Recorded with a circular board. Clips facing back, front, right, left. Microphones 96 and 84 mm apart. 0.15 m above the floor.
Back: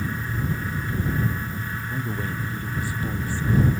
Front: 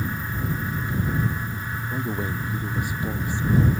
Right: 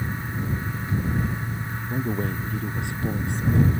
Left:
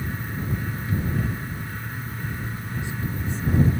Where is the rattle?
I don't hear a rattle.